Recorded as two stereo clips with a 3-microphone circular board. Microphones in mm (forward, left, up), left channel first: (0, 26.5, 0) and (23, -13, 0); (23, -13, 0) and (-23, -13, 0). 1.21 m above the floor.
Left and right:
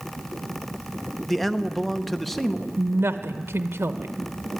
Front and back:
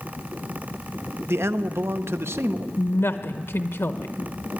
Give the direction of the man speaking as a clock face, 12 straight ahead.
5 o'clock.